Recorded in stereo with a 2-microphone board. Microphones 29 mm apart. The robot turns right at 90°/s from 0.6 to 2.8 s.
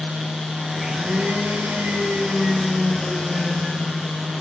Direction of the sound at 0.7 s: 175° right.